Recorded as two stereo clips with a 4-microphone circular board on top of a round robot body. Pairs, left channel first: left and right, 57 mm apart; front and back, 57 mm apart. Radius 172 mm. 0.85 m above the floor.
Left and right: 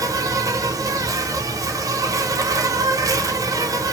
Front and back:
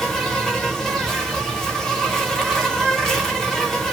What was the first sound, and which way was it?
An insect, 80° right.